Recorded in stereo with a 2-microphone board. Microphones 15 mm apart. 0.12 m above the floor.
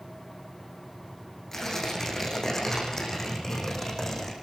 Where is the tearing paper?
20° left (ahead or behind), 7.5 m.